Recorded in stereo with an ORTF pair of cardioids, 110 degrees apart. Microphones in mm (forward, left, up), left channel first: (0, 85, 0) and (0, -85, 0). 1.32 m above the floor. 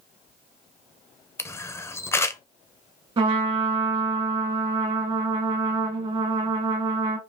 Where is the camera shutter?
15° left, 0.6 m.